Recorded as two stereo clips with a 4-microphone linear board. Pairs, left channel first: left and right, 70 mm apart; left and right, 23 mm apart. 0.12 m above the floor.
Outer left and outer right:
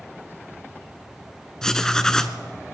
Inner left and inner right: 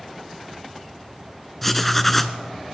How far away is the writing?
About 0.8 m.